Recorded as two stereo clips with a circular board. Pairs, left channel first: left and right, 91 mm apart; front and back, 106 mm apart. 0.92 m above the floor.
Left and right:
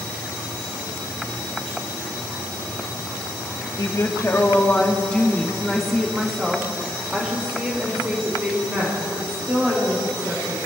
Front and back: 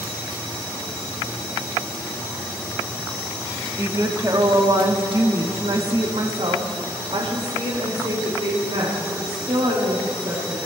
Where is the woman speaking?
125° left, 1.1 m; by 10.7 s 150° right, 3.5 m.